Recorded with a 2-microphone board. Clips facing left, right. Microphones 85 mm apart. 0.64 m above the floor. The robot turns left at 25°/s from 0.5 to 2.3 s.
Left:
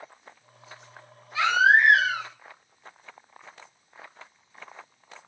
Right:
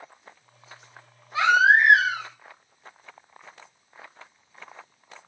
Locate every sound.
1.3 s a baby crying: 35° right (ahead or behind), 0.8 m; by 2.3 s 15° right (ahead or behind), 0.8 m